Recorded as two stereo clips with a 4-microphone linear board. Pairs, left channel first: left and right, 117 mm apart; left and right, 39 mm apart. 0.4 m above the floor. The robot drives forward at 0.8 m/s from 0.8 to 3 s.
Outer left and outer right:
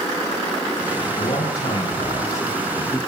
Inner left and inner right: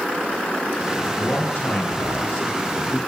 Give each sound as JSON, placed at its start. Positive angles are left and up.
{"t": 1.1, "sound": "a man speaking", "side_deg": 75, "distance_m": 6.0}